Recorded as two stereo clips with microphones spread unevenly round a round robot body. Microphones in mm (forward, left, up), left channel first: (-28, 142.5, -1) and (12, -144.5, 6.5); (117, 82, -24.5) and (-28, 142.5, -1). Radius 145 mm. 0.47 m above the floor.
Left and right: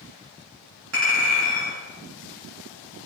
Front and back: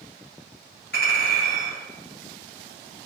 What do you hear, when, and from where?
0.9 s a clink: 40° right, 1.9 m